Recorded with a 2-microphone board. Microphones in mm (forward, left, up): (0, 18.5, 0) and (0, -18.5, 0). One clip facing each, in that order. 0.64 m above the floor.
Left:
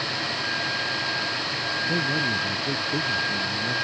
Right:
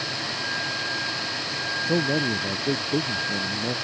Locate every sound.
1.8 s a man speaking: 70° right (ahead or behind); by 3.8 s 75° right (ahead or behind)